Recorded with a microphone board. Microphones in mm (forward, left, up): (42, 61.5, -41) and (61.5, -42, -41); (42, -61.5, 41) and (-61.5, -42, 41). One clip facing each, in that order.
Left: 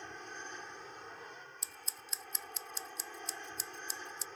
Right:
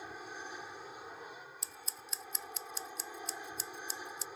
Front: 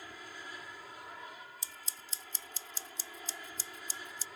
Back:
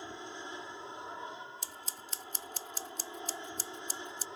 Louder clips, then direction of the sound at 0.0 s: Right 1 dB, back 5 dB; 155° right.